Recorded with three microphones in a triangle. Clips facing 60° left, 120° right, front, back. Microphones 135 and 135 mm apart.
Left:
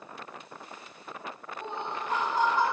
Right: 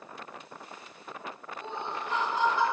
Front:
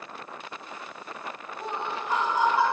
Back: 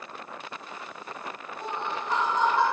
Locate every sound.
1.6 s laughter: 80° left, 2 m